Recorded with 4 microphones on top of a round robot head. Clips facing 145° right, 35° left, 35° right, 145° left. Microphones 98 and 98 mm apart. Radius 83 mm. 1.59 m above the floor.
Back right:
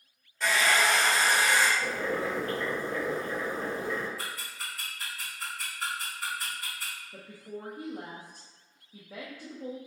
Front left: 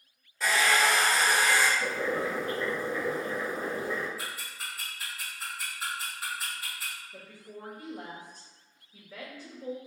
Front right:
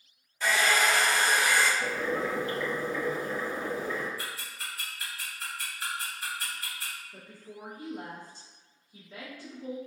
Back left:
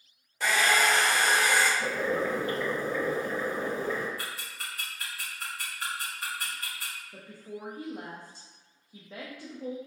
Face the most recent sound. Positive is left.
turn(degrees=180)